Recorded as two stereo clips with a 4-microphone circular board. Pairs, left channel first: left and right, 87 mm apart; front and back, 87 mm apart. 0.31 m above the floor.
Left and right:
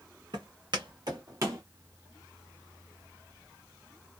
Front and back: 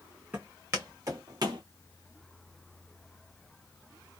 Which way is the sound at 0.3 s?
115° right.